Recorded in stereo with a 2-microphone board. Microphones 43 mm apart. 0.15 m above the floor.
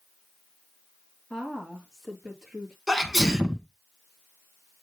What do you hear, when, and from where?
1.3 s a woman speaking: 5° left (ahead or behind), 3 m; by 2.8 s 5° right (ahead or behind), 4 m
2.9 s a sneeze: centre (ahead or behind), 1.5 m